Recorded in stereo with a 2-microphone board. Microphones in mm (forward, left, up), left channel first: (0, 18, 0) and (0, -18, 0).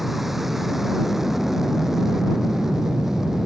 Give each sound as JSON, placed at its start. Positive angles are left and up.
{"t": 0.0, "sound": "an aircraft", "side_deg": -5}